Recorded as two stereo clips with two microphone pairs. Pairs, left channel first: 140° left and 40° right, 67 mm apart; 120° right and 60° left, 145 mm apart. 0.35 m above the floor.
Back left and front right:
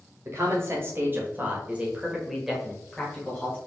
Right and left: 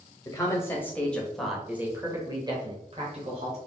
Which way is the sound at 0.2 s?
60° right.